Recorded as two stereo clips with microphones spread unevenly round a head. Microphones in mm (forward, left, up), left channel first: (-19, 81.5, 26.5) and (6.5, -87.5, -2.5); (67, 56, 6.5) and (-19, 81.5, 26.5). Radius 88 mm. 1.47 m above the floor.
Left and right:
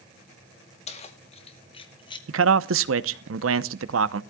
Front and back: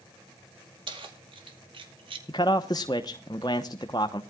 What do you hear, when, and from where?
0.9 s keys jangling: 150° left, 2 m; by 2.2 s 160° left, 1.7 m
2.3 s a man speaking: 90° right, 0.8 m